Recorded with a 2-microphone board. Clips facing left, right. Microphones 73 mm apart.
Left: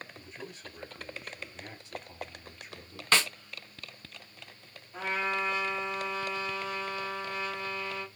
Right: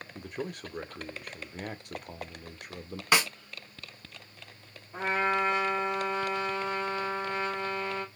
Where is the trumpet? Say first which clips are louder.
Right 4 dB; 35° right (ahead or behind), 2.5 m.